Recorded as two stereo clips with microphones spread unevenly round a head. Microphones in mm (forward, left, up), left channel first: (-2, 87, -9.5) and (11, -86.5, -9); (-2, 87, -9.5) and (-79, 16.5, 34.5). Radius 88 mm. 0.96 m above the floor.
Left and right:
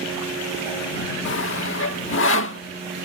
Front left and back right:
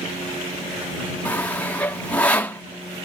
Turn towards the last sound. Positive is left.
turn(degrees=115)